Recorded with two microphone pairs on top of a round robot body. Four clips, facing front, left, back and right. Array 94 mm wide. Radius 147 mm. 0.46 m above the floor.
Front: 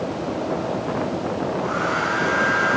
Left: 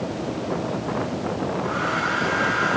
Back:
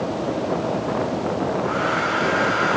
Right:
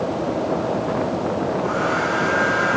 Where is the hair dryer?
50° right, 7.5 m.